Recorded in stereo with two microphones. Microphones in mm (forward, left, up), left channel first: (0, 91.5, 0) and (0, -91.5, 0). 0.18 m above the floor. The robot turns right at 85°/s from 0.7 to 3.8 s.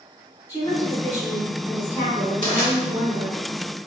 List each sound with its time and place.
0.5 s a woman speaking: 20° left (ahead or behind), 1.2 m; by 3.4 s centre (ahead or behind), 1.2 m
2.4 s crushing: 50° right (ahead or behind), 1.9 m; by 2.7 s 65° right (ahead or behind), 1.9 m